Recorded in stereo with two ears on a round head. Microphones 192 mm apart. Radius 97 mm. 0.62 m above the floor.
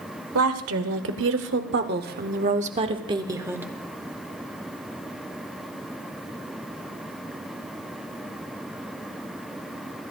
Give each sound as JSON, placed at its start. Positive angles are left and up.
{"t": 0.3, "sound": "a woman speaking", "side_deg": -70, "distance_m": 1.9}